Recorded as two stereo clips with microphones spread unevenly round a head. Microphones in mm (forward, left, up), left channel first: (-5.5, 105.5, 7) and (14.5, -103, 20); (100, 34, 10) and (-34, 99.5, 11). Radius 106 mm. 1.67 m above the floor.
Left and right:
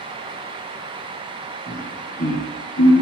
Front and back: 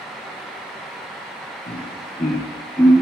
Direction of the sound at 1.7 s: 25° left.